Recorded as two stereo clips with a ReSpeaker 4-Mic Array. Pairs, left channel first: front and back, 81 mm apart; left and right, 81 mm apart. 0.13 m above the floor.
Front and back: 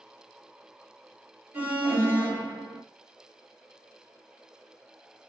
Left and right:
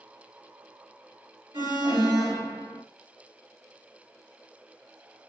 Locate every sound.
1.5 s an alarm: 115° right, 3.5 m